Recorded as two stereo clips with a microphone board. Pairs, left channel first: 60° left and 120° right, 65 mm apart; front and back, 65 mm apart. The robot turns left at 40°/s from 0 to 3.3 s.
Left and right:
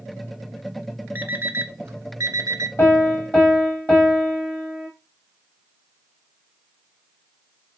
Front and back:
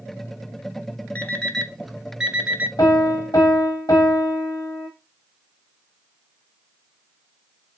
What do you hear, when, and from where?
1.1 s an alarm clock: 65° right, 0.8 m; by 2.7 s 125° right, 0.8 m
2.8 s a piano: 10° left, 4 m; by 4.9 s 10° right, 4 m